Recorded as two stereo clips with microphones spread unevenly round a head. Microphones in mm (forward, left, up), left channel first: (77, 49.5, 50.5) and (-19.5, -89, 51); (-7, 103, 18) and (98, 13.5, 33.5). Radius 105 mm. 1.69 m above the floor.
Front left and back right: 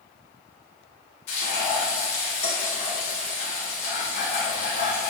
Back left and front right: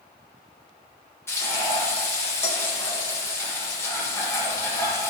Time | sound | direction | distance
1.3 | frying | 70° left | 3 m